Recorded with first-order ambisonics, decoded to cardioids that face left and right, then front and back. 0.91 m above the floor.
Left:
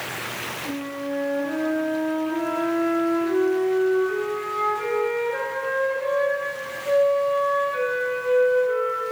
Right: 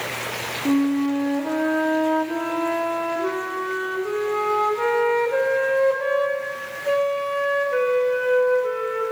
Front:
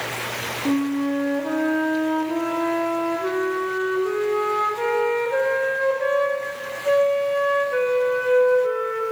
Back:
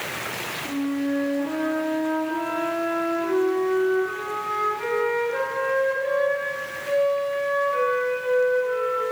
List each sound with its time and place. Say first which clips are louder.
0.7 s a flute: right 8 dB, front 5 dB; 50° right, 1.2 m